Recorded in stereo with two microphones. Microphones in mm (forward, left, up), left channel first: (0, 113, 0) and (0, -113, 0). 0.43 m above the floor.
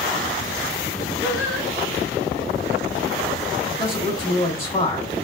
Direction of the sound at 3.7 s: 15° left (ahead or behind).